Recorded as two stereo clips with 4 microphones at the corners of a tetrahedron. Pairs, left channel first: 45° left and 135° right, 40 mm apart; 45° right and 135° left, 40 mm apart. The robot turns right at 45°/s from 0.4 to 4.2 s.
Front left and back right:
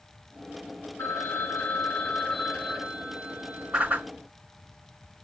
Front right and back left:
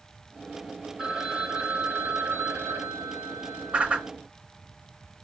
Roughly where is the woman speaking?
No woman speaking in this recording.